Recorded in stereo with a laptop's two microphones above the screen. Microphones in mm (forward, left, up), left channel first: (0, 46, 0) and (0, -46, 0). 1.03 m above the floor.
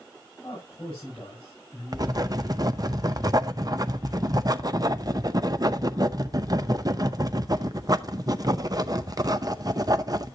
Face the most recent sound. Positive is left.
turn(degrees=-40)  # may be behind; listen again after turning